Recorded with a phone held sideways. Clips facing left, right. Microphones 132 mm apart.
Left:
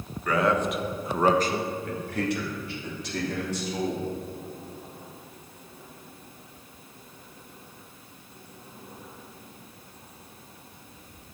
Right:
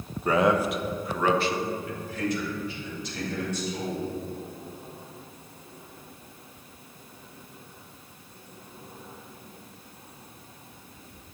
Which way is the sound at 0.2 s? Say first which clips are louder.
Right 2 dB; 30° right (ahead or behind).